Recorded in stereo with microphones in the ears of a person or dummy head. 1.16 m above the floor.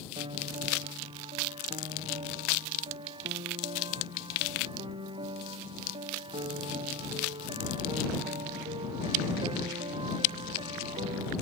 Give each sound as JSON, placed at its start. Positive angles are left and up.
{"t": 0.2, "sound": "a piano", "side_deg": -30}